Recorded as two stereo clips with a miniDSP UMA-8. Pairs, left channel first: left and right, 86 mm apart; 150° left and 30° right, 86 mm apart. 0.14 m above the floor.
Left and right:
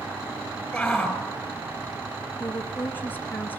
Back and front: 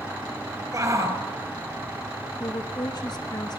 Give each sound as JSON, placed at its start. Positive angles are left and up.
{"t": 0.7, "sound": "a shout", "azimuth_deg": 10, "distance_m": 2.5}
{"t": 2.4, "sound": "a woman speaking", "azimuth_deg": 150, "distance_m": 2.0}